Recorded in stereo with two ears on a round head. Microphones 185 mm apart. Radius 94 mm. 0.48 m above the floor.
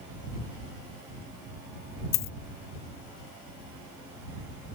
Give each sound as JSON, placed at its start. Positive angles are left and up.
{"t": 2.1, "sound": "a dropped coin", "side_deg": 45}